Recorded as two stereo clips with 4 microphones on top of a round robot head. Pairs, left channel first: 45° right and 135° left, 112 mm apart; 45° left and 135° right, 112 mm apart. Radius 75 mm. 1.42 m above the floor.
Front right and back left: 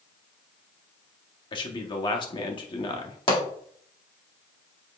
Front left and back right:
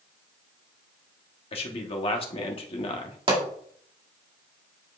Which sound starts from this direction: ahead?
A man speaking, at 1.5 s.